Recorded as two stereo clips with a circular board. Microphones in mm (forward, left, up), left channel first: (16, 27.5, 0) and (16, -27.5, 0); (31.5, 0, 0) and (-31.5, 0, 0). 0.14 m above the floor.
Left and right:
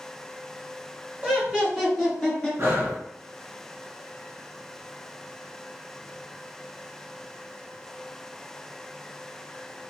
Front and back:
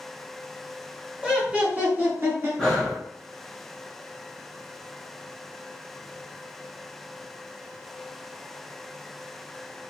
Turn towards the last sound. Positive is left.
turn(degrees=-75)